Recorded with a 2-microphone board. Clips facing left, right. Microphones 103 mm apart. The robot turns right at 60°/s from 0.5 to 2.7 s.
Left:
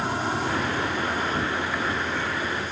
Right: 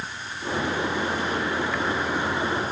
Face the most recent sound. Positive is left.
turn(degrees=-135)